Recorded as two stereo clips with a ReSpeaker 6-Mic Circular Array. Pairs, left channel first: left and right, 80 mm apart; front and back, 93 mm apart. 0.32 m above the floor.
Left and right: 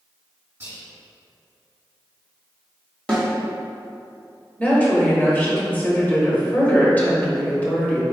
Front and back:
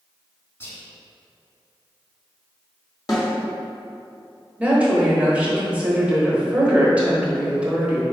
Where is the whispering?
40° right, 1.8 m.